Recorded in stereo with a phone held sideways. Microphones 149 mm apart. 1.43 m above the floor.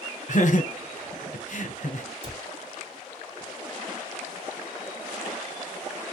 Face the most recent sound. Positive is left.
turn(degrees=-40)  # may be behind; listen again after turning